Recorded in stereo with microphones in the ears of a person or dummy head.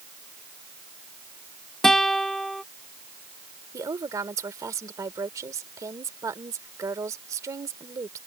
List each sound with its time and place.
1.8 s a guitar: centre (ahead or behind)
3.7 s a woman speaking: 15° right (ahead or behind)